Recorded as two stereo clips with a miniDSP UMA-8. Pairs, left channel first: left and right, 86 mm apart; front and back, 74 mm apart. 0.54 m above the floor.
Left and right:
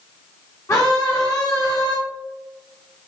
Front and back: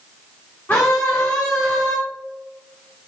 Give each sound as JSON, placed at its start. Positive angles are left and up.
{"t": 0.7, "sound": "a scream", "azimuth_deg": 55, "distance_m": 1.0}